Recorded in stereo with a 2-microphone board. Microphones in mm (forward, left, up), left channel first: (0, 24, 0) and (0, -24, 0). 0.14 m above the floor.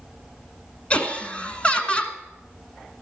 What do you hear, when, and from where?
0.9 s laughter: 25° left (ahead or behind), 1.2 m